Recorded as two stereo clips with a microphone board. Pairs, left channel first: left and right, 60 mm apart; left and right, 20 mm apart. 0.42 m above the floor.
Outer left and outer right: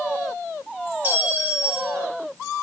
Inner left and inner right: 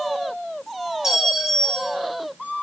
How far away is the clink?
About 2 m.